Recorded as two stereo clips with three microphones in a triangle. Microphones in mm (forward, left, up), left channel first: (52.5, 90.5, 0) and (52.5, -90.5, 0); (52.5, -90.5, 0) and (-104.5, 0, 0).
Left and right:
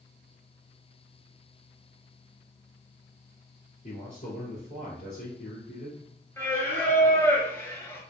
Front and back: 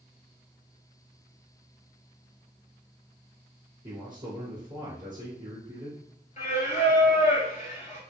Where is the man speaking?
105° left, 1.3 m.